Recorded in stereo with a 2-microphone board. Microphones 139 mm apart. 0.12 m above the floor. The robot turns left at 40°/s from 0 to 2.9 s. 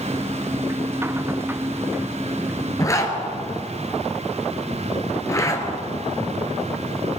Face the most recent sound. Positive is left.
turn(degrees=20)  # may be behind; listen again after turning